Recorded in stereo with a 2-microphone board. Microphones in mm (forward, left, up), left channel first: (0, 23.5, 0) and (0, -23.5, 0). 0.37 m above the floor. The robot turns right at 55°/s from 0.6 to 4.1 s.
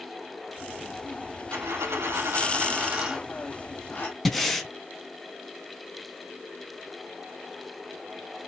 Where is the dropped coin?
100° right, 3.5 m; by 4.2 s 40° left, 3.5 m.